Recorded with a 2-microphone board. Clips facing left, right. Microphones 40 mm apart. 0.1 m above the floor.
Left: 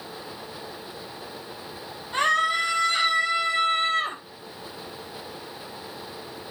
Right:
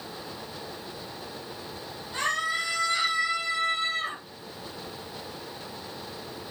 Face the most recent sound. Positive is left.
turn(degrees=50)  # may be behind; listen again after turning